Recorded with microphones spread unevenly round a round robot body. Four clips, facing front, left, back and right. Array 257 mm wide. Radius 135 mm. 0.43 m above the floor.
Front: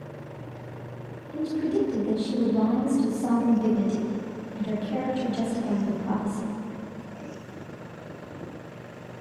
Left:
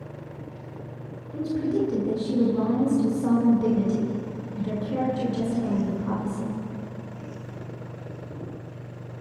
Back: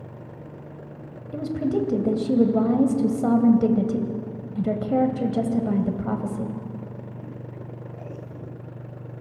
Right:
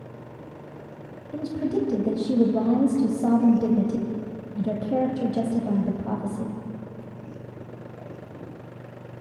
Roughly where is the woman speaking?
Behind right.